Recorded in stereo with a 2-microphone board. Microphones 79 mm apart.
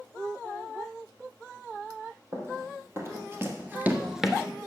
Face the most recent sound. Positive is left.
turn(degrees=0)  # may be behind; listen again after turning